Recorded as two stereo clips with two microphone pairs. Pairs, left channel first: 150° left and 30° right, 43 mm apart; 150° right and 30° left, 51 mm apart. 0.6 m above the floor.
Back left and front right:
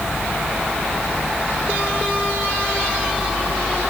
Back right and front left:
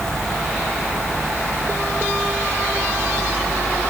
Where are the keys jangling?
No keys jangling in this recording.